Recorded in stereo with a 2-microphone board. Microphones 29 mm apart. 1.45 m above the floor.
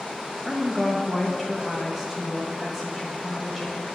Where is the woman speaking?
10° right (ahead or behind), 1.3 m.